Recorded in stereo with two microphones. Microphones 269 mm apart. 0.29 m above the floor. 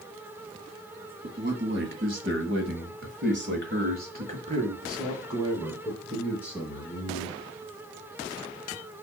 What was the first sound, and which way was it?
A man speaking, 40° right (ahead or behind).